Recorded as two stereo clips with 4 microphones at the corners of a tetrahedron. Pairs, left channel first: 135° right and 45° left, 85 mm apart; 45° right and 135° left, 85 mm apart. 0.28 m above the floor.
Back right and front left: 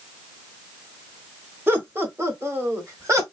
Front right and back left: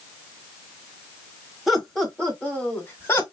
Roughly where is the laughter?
Ahead left.